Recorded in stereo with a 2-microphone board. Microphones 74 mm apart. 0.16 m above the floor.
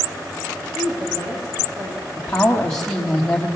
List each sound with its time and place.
0.8 s a woman speaking: 55° right (ahead or behind), 7.5 m
2.2 s a woman speaking: 10° left (ahead or behind), 4 m